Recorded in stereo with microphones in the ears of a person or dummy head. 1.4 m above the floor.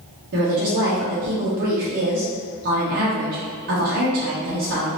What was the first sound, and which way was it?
A woman speaking, 55° right (ahead or behind).